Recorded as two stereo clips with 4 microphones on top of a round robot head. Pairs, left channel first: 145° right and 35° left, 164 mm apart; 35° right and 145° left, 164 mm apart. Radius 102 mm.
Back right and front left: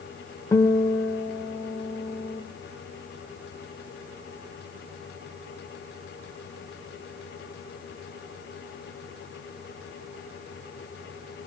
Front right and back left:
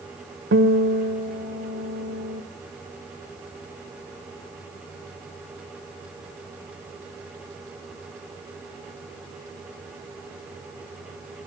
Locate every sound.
0.5 s a guitar: 145° left, 1.6 m